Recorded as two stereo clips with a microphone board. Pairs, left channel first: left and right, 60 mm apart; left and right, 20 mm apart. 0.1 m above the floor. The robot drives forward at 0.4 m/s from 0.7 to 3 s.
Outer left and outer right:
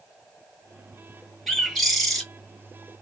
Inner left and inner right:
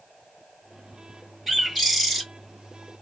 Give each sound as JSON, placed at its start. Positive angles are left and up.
{"t": 1.5, "sound": "a bird", "side_deg": 5, "distance_m": 1.1}